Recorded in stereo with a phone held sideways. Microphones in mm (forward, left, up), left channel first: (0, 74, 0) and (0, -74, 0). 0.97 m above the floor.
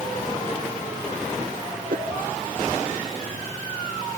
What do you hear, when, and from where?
1.9 s a whoosh: 65° right (ahead or behind)